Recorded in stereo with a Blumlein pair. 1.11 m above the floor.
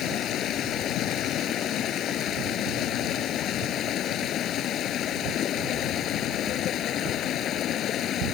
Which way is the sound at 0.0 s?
30° left.